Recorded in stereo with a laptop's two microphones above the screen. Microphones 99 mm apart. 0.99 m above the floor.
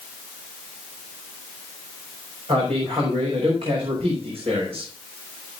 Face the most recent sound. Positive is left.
turn(degrees=-75)  # may be behind; listen again after turning